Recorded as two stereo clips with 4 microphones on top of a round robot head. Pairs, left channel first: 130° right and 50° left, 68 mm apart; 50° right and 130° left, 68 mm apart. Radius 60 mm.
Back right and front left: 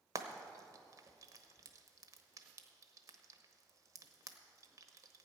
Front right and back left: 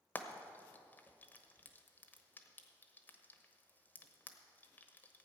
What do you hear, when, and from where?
0.1 s frying: 15° left, 1.1 m